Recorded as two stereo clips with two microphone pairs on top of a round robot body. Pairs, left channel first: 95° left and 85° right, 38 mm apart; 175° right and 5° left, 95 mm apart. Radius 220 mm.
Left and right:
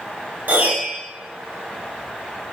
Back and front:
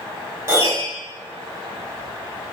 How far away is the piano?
About 3.5 m.